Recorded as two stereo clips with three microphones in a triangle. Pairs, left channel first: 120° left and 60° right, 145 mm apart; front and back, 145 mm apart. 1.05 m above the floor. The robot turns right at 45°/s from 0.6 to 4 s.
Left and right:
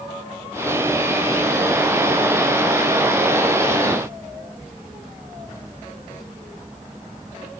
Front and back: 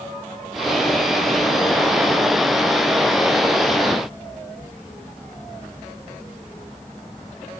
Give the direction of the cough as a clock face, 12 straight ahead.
I don't hear a cough.